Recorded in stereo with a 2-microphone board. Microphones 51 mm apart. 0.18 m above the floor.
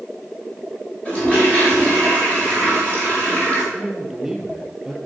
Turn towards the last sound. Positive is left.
turn(degrees=-10)  # may be behind; listen again after turning